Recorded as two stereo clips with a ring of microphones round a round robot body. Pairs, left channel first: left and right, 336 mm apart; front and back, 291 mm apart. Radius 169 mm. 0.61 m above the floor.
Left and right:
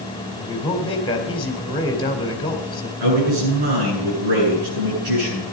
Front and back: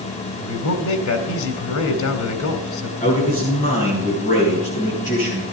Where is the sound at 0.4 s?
15° left, 2 m.